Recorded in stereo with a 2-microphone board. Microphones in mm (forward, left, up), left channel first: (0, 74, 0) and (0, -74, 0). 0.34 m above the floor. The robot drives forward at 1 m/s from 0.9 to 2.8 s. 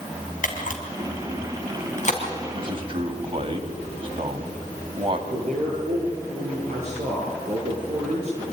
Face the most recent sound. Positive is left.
turn(degrees=-50)  # may be behind; listen again after turning